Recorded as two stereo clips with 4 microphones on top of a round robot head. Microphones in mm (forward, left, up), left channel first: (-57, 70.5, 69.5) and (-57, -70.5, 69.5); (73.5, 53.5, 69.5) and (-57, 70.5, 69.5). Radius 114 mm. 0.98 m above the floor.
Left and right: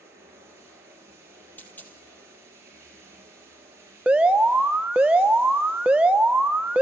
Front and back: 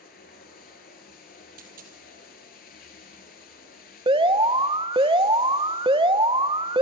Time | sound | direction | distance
0.0 | running water | 15° right | 4.5 m
1.6 | a dropped coin | 170° left | 3 m
4.1 | an alarm | 170° right | 1.2 m